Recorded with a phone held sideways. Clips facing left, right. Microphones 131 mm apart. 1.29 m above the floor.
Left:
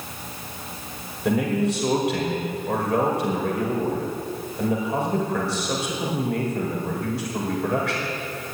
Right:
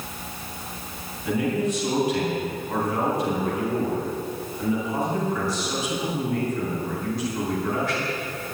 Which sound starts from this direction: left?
A man speaking, at 1.2 s.